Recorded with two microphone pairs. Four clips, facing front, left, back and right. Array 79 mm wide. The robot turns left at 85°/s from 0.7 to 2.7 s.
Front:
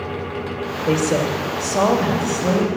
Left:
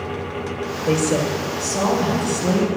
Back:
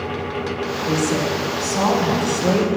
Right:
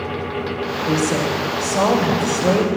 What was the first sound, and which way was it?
A woman speaking, 45° left.